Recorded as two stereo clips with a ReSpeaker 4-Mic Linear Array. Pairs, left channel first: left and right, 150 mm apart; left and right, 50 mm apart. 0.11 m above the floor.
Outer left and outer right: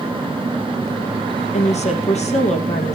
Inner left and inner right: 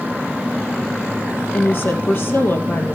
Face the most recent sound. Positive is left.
turn(degrees=50)  # may be behind; listen again after turning